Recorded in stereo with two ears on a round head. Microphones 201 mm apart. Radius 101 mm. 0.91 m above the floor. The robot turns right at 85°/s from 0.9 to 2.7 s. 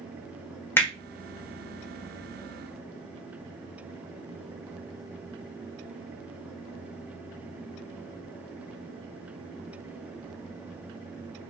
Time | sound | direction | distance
0.8 | hammering | 10° left (ahead or behind) | 1.0 m